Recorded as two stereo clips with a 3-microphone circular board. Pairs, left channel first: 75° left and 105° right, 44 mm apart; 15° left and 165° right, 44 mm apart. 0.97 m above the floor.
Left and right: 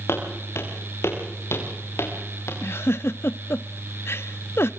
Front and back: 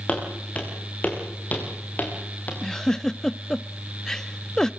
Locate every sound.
0.1 s footsteps: 75° left, 7.5 m; by 2.5 s 60° left, 6.5 m
2.6 s a giggle: 90° left, 0.6 m